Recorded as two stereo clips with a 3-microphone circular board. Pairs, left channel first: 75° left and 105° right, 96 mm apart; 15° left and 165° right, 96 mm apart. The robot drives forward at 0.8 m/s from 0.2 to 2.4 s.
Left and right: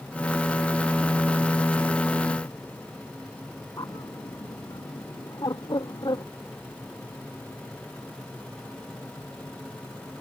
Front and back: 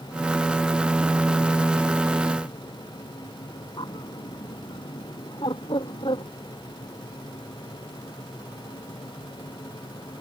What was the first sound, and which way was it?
A bird, 35° left.